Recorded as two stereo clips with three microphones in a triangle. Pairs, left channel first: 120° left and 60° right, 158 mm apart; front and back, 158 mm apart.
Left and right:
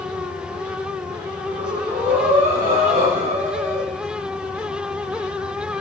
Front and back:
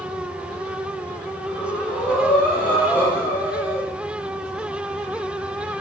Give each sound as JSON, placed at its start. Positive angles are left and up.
{"t": 1.4, "sound": "breathing", "azimuth_deg": -100, "distance_m": 5.0}